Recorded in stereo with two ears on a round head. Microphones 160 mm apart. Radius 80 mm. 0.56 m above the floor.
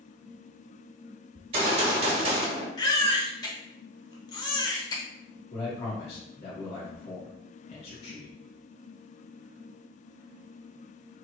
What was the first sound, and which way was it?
A gunshot, 35° right (ahead or behind).